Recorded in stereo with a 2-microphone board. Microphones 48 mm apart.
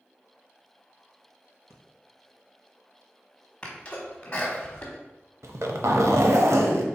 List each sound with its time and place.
1.7 s breathing: 75° right (ahead or behind), 1.1 m
3.6 s a sneeze: 20° left (ahead or behind), 1.0 m
5.4 s a zipper: 75° right (ahead or behind), 0.6 m